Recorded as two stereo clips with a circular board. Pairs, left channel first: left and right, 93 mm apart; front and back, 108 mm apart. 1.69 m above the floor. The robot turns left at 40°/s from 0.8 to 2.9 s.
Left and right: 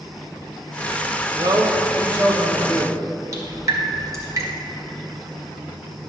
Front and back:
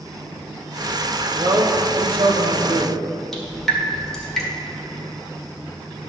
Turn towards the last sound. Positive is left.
turn(degrees=-85)